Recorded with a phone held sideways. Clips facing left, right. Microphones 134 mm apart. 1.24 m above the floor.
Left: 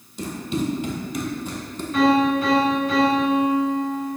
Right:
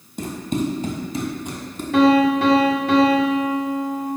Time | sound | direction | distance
0.2 | running footsteps | 50° right (ahead or behind) | 1.9 m
1.9 | a piano | 75° right (ahead or behind) | 1.2 m